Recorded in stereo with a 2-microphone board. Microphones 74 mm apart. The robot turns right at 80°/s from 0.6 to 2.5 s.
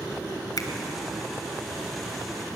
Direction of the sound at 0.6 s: 60° left (ahead or behind).